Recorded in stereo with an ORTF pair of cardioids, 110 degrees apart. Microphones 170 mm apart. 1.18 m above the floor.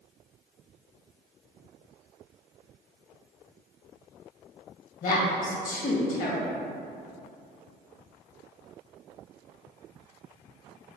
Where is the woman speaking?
50° left, 1.4 m.